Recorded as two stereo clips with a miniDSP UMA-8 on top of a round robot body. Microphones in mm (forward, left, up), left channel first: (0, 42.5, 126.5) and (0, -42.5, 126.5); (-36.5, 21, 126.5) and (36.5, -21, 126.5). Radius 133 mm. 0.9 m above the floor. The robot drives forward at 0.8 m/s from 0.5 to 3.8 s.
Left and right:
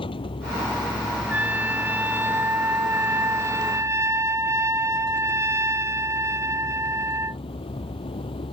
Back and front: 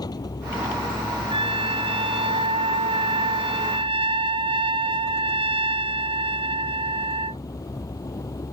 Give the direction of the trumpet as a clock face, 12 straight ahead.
1 o'clock.